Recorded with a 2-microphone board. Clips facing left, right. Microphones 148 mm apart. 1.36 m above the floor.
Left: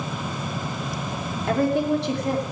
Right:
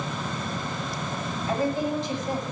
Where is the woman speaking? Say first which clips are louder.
Left 5 dB; 70° left (ahead or behind), 3 m.